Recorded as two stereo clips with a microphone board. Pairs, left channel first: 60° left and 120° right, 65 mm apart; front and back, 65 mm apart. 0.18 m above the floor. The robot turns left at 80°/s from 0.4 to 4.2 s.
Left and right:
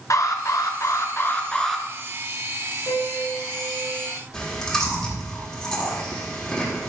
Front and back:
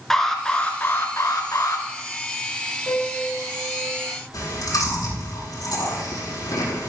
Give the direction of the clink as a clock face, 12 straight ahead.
I don't hear a clink.